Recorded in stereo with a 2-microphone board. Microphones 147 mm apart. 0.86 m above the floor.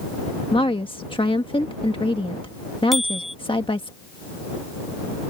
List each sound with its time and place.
0.5 s a woman speaking: 35° left (ahead or behind)
2.9 s a bicycle bell: centre (ahead or behind)